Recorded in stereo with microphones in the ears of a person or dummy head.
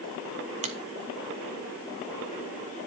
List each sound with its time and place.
0.6 s a finger snap: 35° right (ahead or behind), 1.2 m